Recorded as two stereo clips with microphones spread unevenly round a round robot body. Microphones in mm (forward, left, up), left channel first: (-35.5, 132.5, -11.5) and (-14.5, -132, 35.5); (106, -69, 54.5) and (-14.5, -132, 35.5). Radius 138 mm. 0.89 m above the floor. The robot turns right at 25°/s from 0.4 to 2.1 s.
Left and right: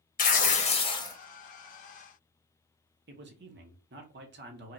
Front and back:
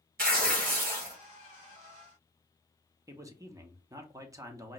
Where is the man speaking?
120° right, 1.1 m.